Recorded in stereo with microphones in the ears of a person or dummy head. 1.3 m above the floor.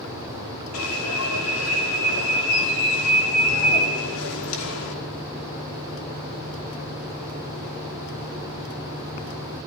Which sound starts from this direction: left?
An alarm, at 0.7 s.